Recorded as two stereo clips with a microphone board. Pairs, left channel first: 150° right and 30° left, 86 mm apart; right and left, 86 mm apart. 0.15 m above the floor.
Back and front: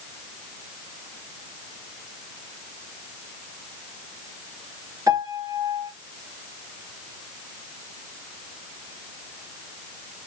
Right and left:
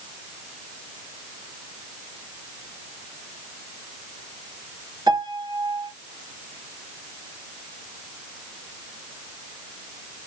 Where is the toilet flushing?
I don't hear a toilet flushing.